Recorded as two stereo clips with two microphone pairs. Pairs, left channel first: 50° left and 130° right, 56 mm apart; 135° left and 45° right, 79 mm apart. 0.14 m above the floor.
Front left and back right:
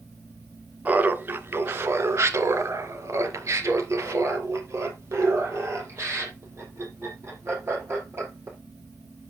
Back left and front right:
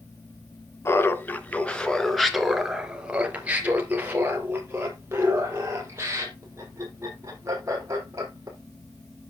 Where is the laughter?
Straight behind, 1.6 m; by 8.6 s 90° right, 5.5 m.